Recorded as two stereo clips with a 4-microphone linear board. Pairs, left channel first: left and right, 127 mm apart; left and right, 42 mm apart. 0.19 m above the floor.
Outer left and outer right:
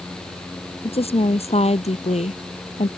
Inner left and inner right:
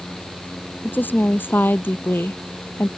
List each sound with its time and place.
0.8 s a woman speaking: 50° left (ahead or behind); by 2.9 s 65° left (ahead or behind)